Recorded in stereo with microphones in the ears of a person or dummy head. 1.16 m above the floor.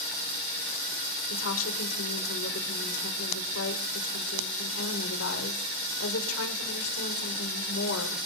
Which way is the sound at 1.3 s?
80° left.